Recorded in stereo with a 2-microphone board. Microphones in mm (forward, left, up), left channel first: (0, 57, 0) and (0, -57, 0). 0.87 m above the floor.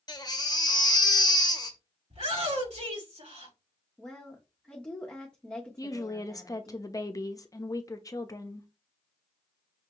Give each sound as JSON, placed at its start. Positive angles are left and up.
{"t": 0.1, "sound": "a baby crying", "side_deg": 35, "distance_m": 0.9}
{"t": 2.1, "sound": "a shout", "side_deg": -80, "distance_m": 4.0}
{"t": 4.0, "sound": "a woman speaking", "side_deg": 10, "distance_m": 1.0}
{"t": 5.8, "sound": "a woman speaking", "side_deg": 30, "distance_m": 0.8}